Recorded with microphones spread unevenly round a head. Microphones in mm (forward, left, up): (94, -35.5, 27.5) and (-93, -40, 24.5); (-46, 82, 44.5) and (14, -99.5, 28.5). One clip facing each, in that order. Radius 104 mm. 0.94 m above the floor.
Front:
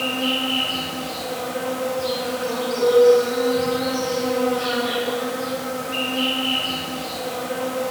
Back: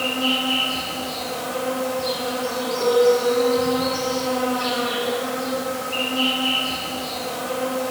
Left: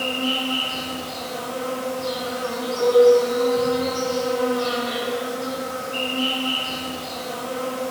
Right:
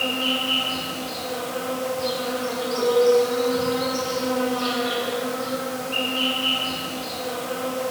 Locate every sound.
0.0 s an insect: 80° right, 0.8 m
2.8 s a piano: 20° right, 0.8 m